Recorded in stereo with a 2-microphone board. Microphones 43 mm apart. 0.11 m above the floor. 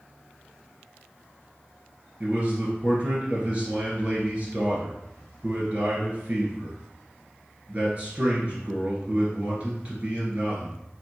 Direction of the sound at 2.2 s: 30° right (ahead or behind).